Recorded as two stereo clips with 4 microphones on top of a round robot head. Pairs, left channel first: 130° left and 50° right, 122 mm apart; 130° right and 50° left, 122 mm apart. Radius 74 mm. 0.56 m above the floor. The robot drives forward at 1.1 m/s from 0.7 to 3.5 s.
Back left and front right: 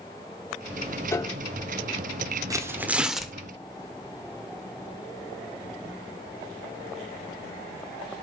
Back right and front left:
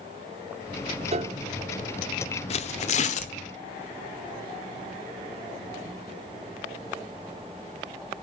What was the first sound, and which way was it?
A piano, 65° left.